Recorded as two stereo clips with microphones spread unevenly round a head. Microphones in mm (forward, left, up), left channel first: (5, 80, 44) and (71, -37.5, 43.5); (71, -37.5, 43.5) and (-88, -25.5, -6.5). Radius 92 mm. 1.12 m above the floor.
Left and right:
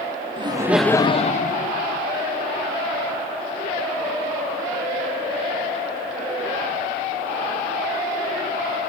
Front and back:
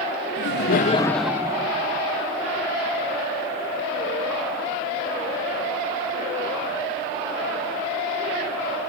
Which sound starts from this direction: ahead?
Laughter, at 0.4 s.